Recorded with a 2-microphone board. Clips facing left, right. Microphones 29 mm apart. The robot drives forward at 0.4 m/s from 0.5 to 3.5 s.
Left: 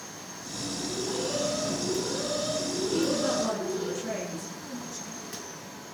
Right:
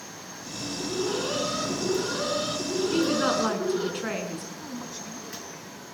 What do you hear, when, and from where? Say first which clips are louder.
0.8 s an alarm: right 4 dB; 50° right (ahead or behind), 6.5 m; by 3.9 s 40° right (ahead or behind), 7 m
2.9 s a woman speaking: right 3 dB; 55° right (ahead or behind), 7.5 m
4.6 s a man speaking: right 1 dB; 20° right (ahead or behind), 6.5 m